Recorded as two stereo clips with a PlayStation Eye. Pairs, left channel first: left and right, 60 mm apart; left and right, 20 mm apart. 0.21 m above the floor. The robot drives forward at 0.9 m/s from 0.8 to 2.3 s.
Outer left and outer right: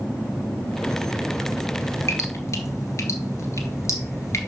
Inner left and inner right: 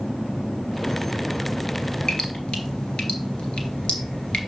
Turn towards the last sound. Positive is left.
turn(degrees=55)  # may be behind; listen again after turning